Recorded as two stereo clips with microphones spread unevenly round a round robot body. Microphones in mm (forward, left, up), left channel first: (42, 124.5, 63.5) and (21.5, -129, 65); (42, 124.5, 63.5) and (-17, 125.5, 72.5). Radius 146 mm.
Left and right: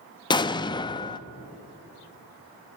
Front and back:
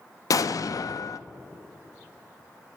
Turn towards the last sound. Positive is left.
turn(degrees=10)